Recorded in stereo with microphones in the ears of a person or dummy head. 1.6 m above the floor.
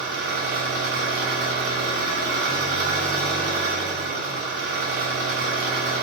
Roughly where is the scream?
No scream in this recording.